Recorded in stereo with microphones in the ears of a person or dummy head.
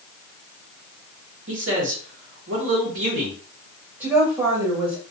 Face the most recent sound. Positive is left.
turn(degrees=-15)  # may be behind; listen again after turning